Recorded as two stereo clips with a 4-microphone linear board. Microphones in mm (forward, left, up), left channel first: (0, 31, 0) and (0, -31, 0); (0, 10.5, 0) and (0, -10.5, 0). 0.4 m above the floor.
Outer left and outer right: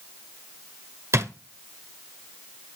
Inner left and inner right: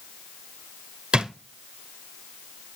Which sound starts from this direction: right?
A drawer, at 1.1 s.